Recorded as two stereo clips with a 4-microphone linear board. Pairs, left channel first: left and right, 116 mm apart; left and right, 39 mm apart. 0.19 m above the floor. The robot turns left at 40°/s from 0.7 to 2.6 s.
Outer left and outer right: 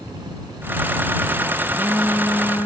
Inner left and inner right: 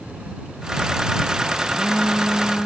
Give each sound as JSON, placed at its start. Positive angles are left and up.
{"t": 1.7, "sound": "a phone buzzing", "azimuth_deg": -170}